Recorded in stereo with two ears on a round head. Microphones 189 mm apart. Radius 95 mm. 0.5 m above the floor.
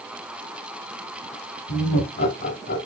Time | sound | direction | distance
1.7 | laughter | 50° left (ahead or behind) | 2.5 m